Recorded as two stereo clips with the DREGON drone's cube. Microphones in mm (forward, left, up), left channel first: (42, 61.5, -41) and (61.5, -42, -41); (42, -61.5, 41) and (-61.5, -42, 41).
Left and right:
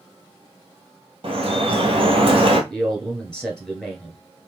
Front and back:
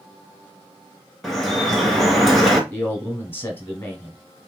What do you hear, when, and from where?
1.2 s dripping: 95° right, 1.2 m
2.7 s a man speaking: 30° left, 1.3 m